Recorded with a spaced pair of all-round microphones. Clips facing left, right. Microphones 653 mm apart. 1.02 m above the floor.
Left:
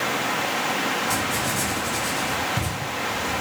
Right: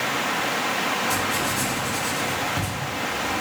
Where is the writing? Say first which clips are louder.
Even; 30° left (ahead or behind), 6 m.